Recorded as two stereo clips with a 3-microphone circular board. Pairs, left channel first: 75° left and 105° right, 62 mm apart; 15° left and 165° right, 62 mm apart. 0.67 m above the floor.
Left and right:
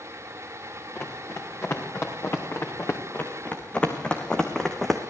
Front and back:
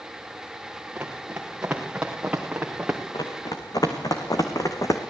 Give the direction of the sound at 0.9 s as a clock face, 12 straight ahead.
8 o'clock.